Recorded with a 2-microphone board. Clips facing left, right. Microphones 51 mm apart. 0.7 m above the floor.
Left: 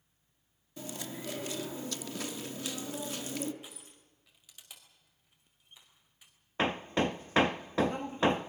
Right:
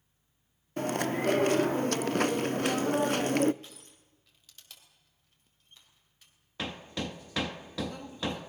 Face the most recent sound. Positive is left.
turn(degrees=35)  # may be behind; listen again after turning